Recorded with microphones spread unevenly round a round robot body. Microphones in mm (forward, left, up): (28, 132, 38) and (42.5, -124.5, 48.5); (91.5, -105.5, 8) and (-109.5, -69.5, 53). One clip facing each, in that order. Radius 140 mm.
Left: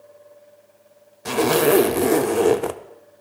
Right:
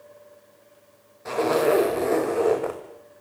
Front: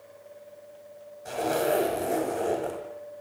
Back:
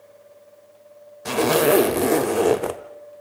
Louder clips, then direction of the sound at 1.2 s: Left 4 dB, back 9 dB; 145° left.